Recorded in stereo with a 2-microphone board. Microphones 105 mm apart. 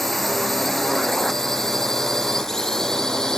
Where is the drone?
5° left (ahead or behind).